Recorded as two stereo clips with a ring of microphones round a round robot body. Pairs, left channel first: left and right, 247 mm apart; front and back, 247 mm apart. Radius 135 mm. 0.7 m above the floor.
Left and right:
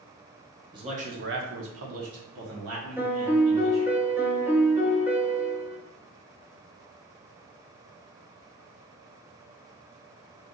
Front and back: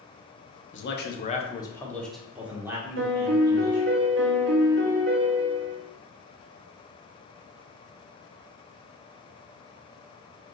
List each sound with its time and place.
0.7 s a man speaking: 20° right, 0.8 m; by 3.9 s 110° right, 2 m
3.0 s a piano: 170° right, 1.0 m